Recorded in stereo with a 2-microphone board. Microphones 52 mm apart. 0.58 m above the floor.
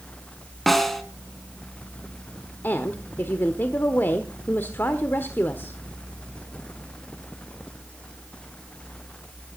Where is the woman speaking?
45° left (ahead or behind), 1.3 m.